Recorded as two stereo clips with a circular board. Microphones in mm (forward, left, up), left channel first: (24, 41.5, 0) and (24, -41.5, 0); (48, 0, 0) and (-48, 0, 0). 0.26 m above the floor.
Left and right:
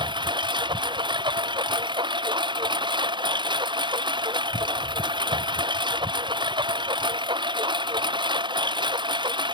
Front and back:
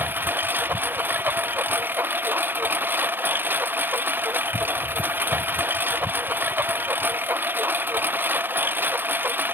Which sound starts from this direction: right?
A lawn mower, at 0.0 s.